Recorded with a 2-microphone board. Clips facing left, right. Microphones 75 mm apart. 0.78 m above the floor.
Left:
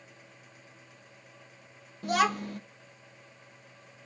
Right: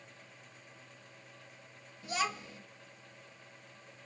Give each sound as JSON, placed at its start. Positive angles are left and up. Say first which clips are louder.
{"t": 2.0, "sound": "a child speaking", "louder": "left 9 dB", "side_deg": 55, "distance_m": 0.7}